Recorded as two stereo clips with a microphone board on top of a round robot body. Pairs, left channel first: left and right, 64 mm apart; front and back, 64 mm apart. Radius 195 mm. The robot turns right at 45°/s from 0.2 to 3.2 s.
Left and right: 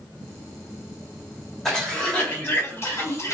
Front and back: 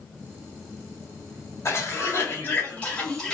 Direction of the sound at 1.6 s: 10° left.